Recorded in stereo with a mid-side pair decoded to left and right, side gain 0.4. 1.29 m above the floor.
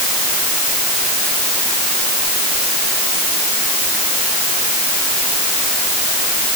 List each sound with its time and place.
Only background noise.